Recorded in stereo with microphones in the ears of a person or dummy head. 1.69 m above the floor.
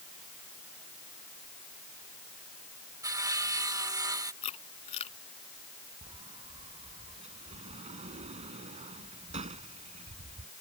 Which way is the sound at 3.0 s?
15° right (ahead or behind).